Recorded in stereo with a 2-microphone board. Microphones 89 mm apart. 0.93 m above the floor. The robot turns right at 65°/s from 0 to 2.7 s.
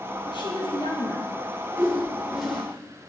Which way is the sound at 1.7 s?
50° right.